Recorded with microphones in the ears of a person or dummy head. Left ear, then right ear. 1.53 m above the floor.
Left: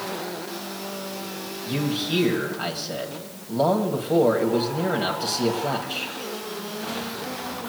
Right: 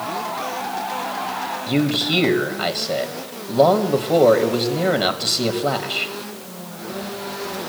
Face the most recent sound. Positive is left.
turn(degrees=-25)  # may be behind; listen again after turning